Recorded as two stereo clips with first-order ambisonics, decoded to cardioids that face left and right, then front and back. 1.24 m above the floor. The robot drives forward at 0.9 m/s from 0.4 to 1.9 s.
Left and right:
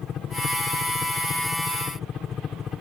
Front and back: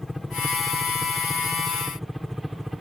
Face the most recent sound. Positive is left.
turn(degrees=85)